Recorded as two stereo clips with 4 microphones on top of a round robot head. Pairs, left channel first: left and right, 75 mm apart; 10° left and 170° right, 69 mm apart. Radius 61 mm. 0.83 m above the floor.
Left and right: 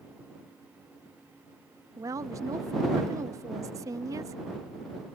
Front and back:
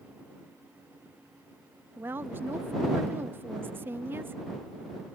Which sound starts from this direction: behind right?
A woman speaking, at 2.0 s.